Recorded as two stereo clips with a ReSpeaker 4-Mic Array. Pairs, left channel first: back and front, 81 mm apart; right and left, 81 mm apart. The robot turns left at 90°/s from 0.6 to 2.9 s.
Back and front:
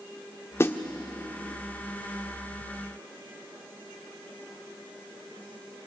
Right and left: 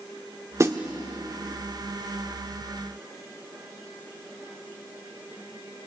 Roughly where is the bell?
No bell in this recording.